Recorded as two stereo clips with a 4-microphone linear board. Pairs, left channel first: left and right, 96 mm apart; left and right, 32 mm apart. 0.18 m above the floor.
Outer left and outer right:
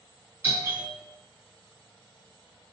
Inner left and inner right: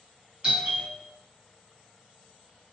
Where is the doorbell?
25° right (ahead or behind), 1.6 m.